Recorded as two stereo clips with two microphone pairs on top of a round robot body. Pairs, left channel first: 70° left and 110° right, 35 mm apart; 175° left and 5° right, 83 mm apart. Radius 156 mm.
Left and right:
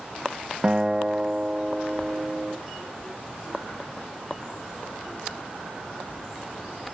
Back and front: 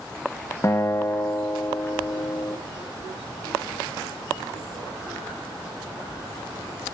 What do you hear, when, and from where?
0.6 s a guitar: 155° right, 1.1 m